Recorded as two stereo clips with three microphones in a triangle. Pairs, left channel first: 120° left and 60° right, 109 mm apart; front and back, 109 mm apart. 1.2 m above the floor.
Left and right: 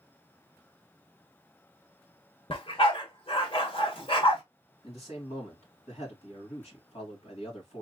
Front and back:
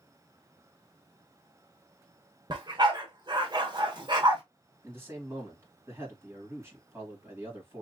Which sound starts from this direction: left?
A man speaking, at 4.8 s.